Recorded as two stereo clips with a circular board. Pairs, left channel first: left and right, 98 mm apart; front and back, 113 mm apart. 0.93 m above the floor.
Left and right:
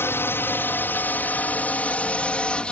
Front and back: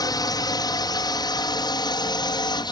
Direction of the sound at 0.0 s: 30° left.